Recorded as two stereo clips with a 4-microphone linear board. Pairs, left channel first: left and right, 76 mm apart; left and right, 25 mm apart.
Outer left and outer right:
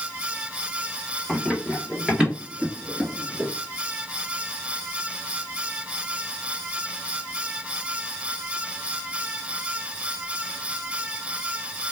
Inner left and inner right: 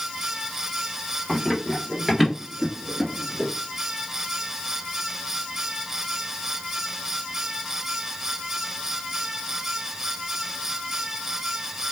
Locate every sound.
1.3 s running footsteps: 5° right (ahead or behind), 2.5 m; by 3.5 s 20° right (ahead or behind), 1.6 m